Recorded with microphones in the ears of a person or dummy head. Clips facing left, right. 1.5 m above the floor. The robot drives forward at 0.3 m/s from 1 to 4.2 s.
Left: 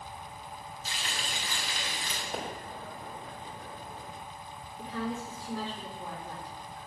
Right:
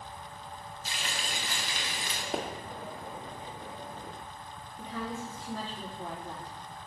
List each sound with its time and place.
0.8 s frying: 40° right (ahead or behind), 1.8 m; by 2.2 s 50° right (ahead or behind), 1.6 m
2.3 s a pop: 55° right (ahead or behind), 1.7 m
4.8 s a woman speaking: 40° right (ahead or behind), 4.5 m